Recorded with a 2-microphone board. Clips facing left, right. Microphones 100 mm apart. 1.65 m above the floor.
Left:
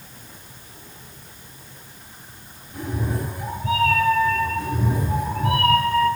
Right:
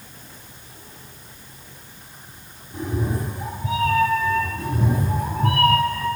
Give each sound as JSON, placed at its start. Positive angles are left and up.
{"t": 2.7, "sound": "a cat meowing", "side_deg": -20, "distance_m": 4.0}
{"t": 4.6, "sound": "a cat meowing", "side_deg": -50, "distance_m": 4.0}